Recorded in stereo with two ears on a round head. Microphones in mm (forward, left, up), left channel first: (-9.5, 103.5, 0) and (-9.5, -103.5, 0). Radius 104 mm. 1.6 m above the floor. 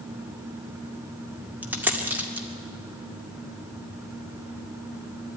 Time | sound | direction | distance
1.6 | a dropped coin | 10° right (ahead or behind) | 1.8 m